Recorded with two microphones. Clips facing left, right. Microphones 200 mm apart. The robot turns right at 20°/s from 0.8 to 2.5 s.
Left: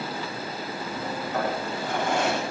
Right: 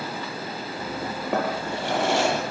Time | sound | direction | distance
1.3 | a drawer | 70° right (ahead or behind) | 8 m